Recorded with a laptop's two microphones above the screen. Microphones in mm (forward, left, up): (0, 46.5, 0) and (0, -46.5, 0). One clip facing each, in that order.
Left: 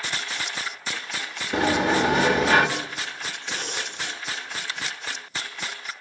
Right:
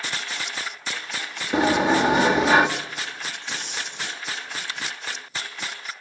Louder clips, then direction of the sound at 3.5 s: Left 4 dB; 60° left (ahead or behind).